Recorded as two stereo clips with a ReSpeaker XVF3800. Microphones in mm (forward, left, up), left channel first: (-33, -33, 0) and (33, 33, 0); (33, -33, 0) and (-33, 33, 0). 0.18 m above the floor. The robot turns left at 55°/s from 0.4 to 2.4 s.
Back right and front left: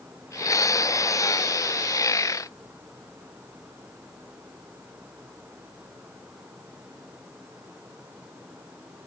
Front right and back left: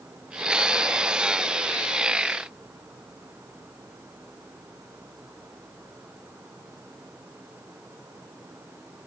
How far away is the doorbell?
I don't hear a doorbell.